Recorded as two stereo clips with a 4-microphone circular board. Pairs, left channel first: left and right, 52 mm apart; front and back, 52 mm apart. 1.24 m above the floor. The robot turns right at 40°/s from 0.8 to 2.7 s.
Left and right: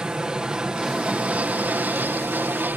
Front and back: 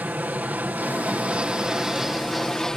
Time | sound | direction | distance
0.0 | an aircraft | 155° right | ?